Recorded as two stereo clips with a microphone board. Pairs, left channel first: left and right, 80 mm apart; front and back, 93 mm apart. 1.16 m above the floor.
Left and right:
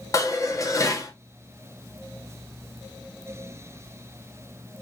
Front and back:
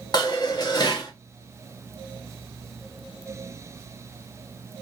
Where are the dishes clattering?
45° left, 1.1 m.